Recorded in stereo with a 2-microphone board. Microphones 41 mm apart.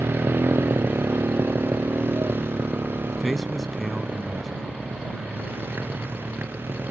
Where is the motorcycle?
65° right (ahead or behind); by 6.9 s 60° right (ahead or behind).